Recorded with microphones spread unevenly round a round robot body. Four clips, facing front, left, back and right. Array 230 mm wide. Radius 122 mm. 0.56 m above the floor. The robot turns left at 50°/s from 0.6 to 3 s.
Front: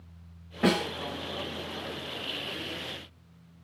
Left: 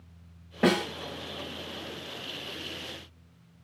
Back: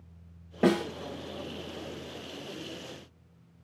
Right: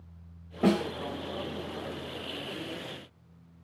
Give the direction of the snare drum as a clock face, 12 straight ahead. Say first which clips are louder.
Left 1 dB, back 1 dB; 6 o'clock.